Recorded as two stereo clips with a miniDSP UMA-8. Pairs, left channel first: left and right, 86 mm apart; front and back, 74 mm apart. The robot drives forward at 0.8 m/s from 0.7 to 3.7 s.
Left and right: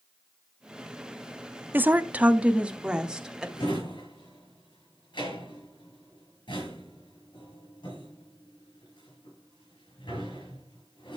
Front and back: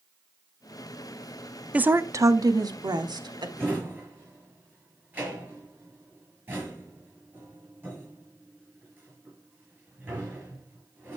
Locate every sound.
1.7 s a woman speaking: 125° right, 0.6 m; by 3.5 s 170° right, 1.6 m
3.6 s a drawer: 115° left, 6 m